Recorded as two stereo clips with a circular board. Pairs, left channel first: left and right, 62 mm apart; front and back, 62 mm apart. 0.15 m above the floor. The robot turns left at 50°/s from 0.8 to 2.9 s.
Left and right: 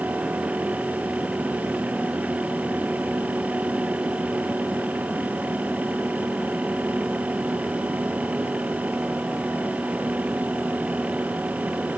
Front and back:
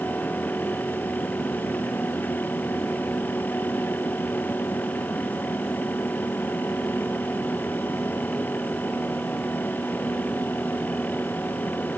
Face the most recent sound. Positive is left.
No sound to turn to.